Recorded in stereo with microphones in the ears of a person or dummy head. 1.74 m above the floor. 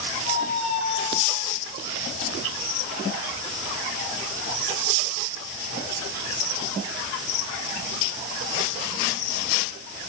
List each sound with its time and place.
0.2 s a squeak: 50° left (ahead or behind), 2.5 m